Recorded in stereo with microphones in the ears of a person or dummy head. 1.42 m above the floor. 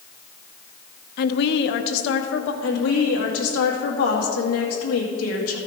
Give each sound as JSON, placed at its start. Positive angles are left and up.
{"t": 1.2, "sound": "a woman speaking", "side_deg": 60, "distance_m": 0.7}
{"t": 2.6, "sound": "a woman speaking", "side_deg": 70, "distance_m": 2.0}